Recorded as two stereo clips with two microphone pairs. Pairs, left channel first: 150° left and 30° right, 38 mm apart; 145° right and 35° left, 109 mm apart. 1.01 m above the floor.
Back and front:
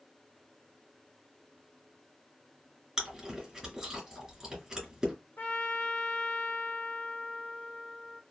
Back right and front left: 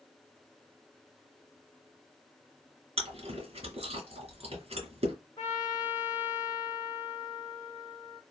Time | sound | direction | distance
3.0 | chewing | 50° left | 1.9 m
5.4 | a trumpet | 160° left | 1.4 m